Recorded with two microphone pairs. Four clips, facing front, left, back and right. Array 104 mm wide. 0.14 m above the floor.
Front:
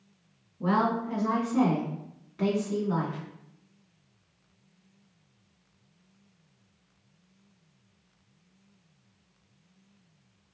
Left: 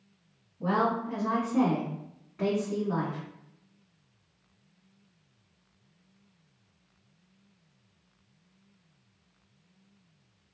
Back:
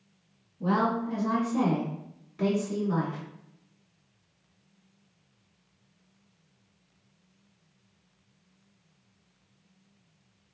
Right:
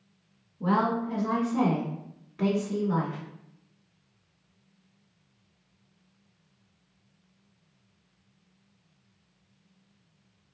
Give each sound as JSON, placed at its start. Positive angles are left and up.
{"t": 0.6, "sound": "a woman speaking", "azimuth_deg": 10, "distance_m": 1.7}